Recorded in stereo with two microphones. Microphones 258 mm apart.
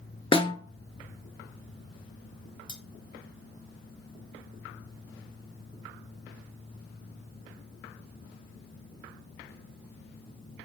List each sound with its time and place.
0.3 s a snare drum: 20° left (ahead or behind), 0.6 m
2.7 s cutlery clinking: 20° right (ahead or behind), 0.9 m